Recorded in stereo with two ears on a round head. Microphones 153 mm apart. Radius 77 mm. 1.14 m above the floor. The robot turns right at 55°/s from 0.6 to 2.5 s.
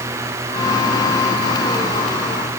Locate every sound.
Only background noise.